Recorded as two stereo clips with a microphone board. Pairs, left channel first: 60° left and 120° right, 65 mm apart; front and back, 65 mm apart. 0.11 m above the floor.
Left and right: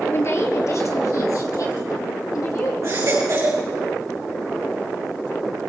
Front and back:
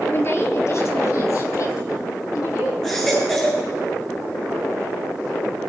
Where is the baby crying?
80° right, 5 m.